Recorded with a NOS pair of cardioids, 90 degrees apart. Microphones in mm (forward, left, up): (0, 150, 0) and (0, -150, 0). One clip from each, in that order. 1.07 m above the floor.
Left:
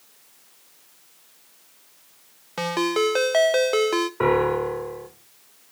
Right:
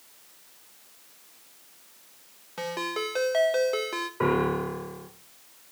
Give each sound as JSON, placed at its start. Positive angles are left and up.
{"t": 2.6, "sound": "a ringtone", "azimuth_deg": 40, "distance_m": 0.7}
{"t": 4.2, "sound": "a piano", "azimuth_deg": 30, "distance_m": 2.5}